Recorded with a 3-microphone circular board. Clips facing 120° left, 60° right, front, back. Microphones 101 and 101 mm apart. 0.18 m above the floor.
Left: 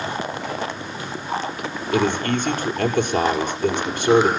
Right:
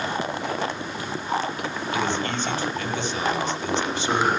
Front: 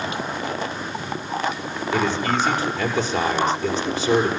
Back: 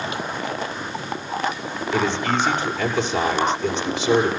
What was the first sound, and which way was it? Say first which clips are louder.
A man speaking: left 6 dB, even; 90° left.